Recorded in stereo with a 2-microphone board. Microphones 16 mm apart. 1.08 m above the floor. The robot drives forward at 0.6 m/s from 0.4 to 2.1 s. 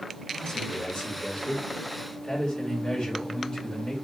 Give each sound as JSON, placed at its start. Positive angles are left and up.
{"t": 0.3, "sound": "a man speaking", "side_deg": 70, "distance_m": 4.5}